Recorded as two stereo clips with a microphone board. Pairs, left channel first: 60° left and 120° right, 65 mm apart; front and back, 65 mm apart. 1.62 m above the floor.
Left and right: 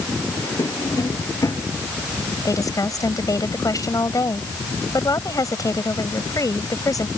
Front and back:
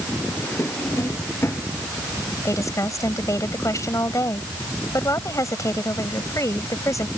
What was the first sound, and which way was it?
A drawer, 45° left.